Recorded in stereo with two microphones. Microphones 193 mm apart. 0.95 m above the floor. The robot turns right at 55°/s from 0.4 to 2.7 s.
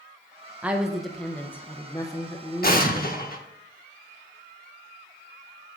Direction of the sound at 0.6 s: 5° right (ahead or behind).